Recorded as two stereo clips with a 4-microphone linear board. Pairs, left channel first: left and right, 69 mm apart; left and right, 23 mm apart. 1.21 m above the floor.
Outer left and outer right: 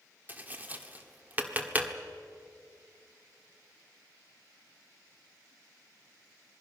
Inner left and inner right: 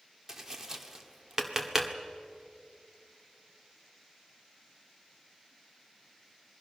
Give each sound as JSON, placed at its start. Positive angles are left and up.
{"t": 0.3, "sound": "tapping", "side_deg": -25, "distance_m": 1.5}